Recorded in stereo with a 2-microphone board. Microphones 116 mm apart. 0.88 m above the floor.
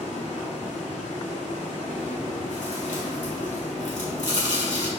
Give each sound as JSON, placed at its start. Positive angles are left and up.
{"t": 0.0, "sound": "running water", "side_deg": 80, "distance_m": 3.5}
{"t": 2.0, "sound": "chewing", "side_deg": 85, "distance_m": 2.5}